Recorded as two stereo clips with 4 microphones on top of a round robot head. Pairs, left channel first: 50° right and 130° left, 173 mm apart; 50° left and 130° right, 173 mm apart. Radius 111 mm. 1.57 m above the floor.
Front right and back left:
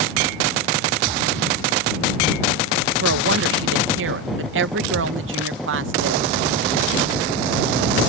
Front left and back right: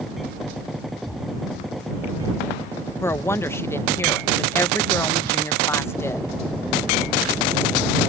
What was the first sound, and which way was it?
A woman speaking, 125° left.